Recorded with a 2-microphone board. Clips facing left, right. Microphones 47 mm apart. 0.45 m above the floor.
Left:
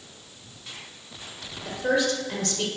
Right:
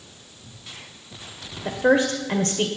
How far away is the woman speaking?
About 2.0 m.